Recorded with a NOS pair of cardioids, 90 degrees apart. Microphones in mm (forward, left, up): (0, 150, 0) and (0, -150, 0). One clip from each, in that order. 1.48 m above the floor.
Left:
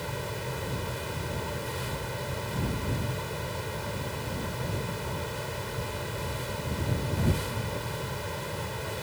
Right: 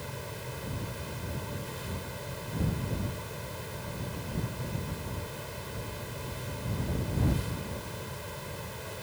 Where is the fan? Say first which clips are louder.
Left 6 dB; 40° left.